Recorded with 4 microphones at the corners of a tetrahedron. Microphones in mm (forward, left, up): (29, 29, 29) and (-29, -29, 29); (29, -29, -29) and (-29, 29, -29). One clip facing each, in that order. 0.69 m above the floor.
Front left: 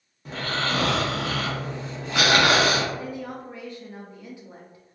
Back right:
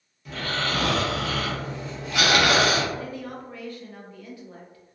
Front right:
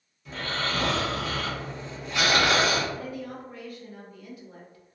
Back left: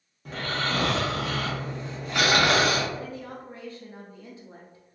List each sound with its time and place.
0.2 s snoring: 100° left, 0.9 m
2.9 s a woman speaking: 100° left, 0.5 m